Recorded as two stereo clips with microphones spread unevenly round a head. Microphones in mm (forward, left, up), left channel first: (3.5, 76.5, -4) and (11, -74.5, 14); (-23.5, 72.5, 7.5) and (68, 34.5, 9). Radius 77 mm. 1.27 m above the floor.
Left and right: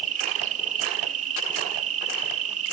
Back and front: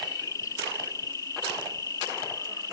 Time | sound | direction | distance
0.0 | an insect | 135° right | ?